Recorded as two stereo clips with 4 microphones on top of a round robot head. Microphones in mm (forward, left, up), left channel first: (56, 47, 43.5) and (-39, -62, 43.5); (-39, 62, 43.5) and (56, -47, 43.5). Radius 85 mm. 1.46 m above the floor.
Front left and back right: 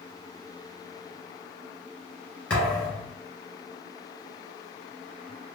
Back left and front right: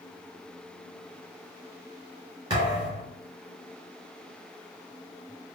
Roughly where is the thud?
Ahead right.